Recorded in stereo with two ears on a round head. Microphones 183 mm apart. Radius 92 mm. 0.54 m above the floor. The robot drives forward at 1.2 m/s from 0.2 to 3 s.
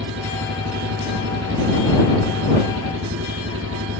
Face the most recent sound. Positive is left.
turn(degrees=-65)  # may be behind; listen again after turning